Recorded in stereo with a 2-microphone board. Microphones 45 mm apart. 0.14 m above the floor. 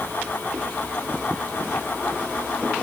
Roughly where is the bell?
No bell in this recording.